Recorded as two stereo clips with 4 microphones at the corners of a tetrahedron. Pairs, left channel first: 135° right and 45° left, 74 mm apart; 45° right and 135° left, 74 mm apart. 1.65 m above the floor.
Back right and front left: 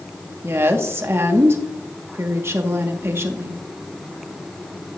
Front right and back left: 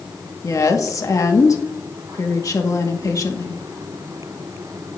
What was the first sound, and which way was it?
A woman speaking, 5° right.